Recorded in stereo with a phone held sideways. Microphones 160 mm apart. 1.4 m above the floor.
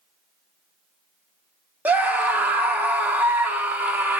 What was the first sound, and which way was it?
A scream, 10° right (ahead or behind).